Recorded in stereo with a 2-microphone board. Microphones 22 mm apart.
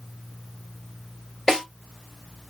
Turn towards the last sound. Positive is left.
turn(degrees=15)  # may be behind; listen again after turning